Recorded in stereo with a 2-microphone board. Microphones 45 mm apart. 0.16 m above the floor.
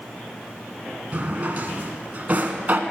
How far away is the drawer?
About 1.0 m.